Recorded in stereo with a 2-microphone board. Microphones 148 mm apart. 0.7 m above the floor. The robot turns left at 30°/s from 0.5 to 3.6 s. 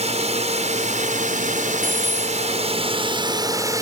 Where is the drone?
60° right; by 3.8 s 150° right.